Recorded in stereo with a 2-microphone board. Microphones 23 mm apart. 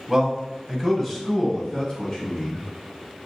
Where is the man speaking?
15° right (ahead or behind), 1.3 m; by 2.7 s 35° left (ahead or behind), 1.6 m.